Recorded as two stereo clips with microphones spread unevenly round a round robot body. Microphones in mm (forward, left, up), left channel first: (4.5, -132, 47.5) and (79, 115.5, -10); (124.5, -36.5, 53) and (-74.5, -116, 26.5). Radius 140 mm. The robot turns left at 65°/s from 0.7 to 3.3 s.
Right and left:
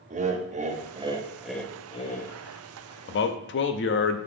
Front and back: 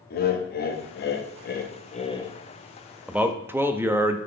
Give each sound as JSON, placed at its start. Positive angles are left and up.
{"t": 0.1, "sound": "laughter", "azimuth_deg": 50, "distance_m": 0.8}
{"t": 3.1, "sound": "a man speaking", "azimuth_deg": -90, "distance_m": 0.5}